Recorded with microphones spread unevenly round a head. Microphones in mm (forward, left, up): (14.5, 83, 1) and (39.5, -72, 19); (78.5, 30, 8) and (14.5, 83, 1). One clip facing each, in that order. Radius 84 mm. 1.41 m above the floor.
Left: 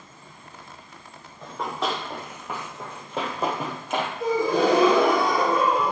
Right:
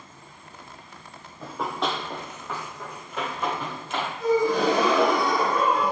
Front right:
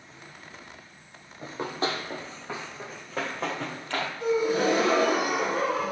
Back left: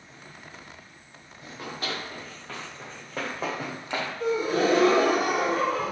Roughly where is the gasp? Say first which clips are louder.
Right 1 dB, even; left.